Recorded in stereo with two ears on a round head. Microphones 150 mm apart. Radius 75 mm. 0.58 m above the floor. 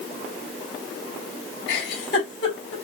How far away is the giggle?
About 3 m.